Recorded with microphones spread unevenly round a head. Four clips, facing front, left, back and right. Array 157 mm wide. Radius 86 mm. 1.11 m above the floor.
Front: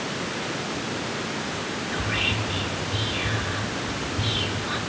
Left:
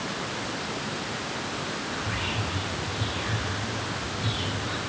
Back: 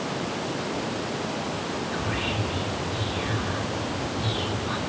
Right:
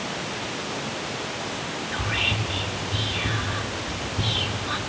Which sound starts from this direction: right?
Whispering, at 1.9 s.